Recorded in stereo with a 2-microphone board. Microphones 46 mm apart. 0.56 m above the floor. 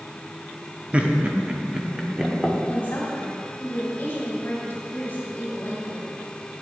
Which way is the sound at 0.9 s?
25° right (ahead or behind).